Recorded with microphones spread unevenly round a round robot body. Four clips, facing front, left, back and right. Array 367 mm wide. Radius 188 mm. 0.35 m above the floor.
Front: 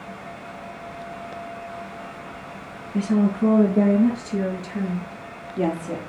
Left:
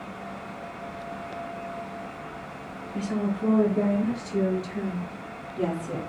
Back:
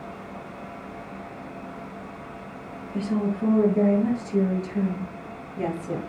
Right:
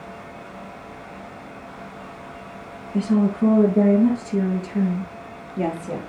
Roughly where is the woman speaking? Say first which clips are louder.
Right 8 dB, front 5 dB; ahead right.